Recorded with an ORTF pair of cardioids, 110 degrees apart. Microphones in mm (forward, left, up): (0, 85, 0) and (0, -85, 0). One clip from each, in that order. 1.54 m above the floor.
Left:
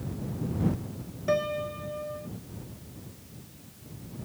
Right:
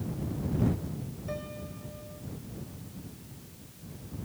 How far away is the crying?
No crying in this recording.